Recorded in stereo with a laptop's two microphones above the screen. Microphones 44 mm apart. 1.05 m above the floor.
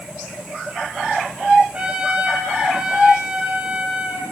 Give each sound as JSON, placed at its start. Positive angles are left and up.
{"t": 1.7, "sound": "a trumpet", "side_deg": -25, "distance_m": 1.2}